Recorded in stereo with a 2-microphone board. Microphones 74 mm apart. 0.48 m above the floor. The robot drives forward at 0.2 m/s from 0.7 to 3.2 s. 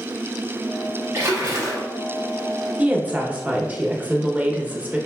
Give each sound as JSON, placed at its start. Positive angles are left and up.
{"t": 1.1, "sound": "a splash", "side_deg": -35, "distance_m": 1.1}
{"t": 2.8, "sound": "a woman speaking", "side_deg": -20, "distance_m": 0.7}